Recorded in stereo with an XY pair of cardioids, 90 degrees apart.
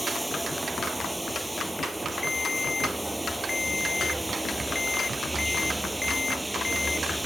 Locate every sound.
0.0 s running water: 10° right
2.2 s a ringtone: 25° left